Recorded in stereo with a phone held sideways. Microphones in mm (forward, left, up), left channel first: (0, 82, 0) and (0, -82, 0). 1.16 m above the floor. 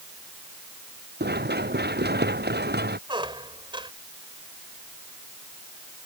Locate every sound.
1.2 s running footsteps: 85° right; by 3.0 s 80° right
3.1 s a squeak: 30° right (ahead or behind)